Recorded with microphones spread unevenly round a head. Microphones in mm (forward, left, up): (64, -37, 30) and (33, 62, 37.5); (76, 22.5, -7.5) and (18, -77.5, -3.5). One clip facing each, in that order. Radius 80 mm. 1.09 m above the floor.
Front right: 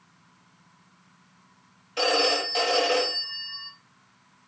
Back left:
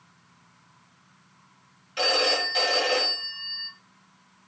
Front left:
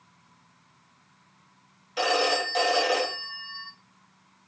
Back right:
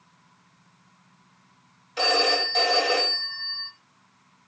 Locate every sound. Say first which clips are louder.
2.0 s a phone ringing: front right 2 dB, back right 1 dB; 25° right, 2 m